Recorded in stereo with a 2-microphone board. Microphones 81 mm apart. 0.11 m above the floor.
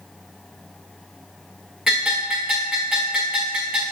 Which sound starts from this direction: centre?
A bell, at 1.9 s.